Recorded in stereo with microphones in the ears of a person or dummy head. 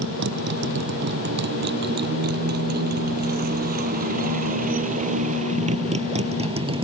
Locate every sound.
0.0 s a motorcycle: 65° right (ahead or behind); by 6.8 s 30° right (ahead or behind)